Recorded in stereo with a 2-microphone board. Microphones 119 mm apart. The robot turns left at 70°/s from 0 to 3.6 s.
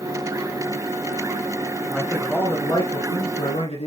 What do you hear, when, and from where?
1.9 s a man speaking: 165° right, 3 m; by 3.9 s 75° left, 3 m